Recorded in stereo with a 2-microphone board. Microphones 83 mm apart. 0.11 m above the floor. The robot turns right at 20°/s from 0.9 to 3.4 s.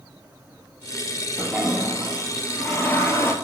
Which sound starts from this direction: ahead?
A toilet flushing, at 1.4 s.